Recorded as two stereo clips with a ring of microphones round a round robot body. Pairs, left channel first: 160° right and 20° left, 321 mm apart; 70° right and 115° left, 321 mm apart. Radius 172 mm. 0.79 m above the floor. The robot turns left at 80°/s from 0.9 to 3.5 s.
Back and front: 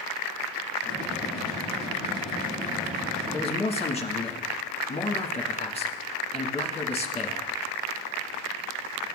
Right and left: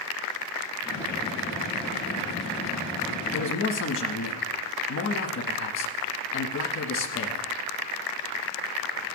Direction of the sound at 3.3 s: 80° right.